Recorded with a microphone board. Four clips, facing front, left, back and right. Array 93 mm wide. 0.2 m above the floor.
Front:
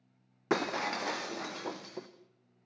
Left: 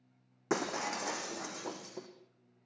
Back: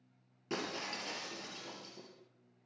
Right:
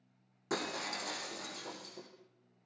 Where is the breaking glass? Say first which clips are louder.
Left 4 dB, front 9 dB; 20° left, 3 m.